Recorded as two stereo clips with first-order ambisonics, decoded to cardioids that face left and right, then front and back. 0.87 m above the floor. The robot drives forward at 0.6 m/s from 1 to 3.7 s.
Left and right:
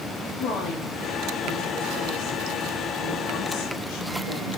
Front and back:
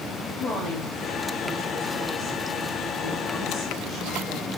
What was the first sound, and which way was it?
A woman speaking, 55° left.